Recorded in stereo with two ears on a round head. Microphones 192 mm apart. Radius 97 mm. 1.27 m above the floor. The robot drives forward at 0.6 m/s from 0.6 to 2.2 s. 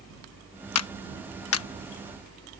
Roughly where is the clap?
Left.